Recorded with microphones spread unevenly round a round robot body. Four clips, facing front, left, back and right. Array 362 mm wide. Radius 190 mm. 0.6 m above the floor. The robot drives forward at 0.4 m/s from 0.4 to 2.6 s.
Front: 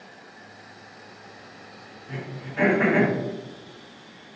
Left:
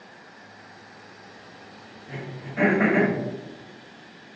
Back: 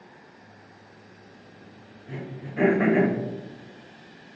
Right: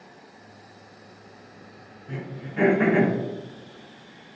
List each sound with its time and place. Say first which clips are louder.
2.1 s throat clearing: right 1 dB, even; 115° right, 0.8 m; by 3.1 s 130° right, 0.9 m